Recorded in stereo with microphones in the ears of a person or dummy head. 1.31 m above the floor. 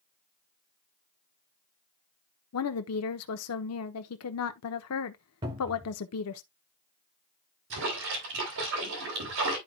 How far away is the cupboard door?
About 2 m.